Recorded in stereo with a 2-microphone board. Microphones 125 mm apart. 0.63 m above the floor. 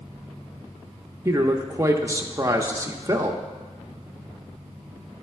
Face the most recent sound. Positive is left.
turn(degrees=-25)  # may be behind; listen again after turning